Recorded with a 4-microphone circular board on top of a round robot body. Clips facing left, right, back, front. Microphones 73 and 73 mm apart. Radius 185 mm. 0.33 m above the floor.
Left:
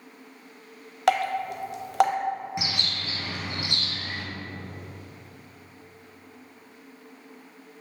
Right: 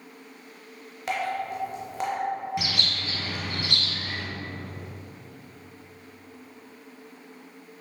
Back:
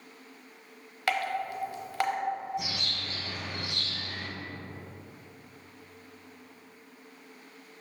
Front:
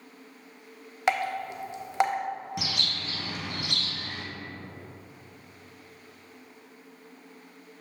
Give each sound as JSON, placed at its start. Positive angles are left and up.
{"t": 1.1, "sound": "dripping", "azimuth_deg": 70, "distance_m": 0.7}
{"t": 2.6, "sound": "a bird", "azimuth_deg": 20, "distance_m": 0.8}